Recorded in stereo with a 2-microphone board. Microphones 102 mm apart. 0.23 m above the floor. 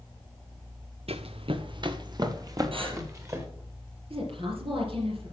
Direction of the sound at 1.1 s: 75° right (ahead or behind).